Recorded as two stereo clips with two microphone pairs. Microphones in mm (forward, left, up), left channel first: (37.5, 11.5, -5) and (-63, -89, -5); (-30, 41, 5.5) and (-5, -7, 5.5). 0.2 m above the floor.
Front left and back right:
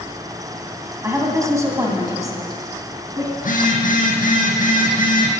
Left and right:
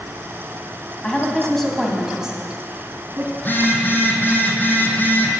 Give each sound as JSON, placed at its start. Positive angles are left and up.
{"t": 1.0, "sound": "a woman speaking", "azimuth_deg": 175, "distance_m": 1.8}
{"t": 3.4, "sound": "a phone buzzing", "azimuth_deg": 65, "distance_m": 1.7}